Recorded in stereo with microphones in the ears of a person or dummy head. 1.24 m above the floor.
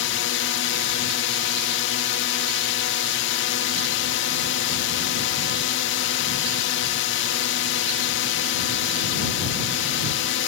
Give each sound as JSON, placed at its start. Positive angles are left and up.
{"t": 0.0, "sound": "a drone", "side_deg": 55}